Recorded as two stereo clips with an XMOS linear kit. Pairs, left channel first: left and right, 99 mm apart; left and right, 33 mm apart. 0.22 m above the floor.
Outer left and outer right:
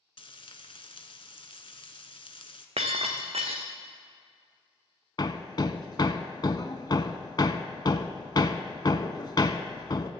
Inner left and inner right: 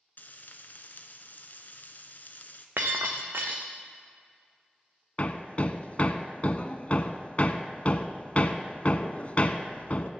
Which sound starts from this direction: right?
Breaking glass, at 2.8 s.